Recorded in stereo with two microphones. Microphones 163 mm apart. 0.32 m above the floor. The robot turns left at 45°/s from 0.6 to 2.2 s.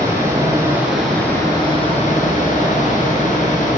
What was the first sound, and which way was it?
Running water, 160° right.